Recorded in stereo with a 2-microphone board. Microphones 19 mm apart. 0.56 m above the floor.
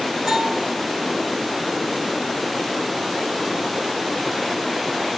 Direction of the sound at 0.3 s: 45° right (ahead or behind).